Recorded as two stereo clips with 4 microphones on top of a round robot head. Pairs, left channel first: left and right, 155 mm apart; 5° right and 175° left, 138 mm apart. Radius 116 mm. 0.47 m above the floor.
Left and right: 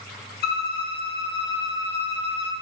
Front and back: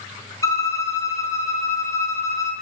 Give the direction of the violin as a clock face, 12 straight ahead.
10 o'clock.